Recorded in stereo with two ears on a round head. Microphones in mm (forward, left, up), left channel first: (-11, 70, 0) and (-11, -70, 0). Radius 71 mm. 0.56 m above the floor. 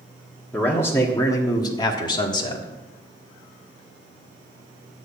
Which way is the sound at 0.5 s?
10° left (ahead or behind).